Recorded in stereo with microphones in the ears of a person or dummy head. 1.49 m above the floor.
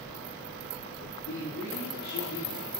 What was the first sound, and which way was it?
A man speaking, 85° left.